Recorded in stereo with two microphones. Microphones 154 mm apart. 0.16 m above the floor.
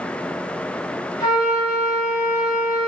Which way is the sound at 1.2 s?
30° left (ahead or behind).